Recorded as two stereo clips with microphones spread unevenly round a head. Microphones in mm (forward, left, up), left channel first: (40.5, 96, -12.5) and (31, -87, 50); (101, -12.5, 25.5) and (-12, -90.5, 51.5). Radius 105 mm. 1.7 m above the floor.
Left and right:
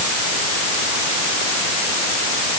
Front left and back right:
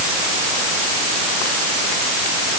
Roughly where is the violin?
I don't hear a violin.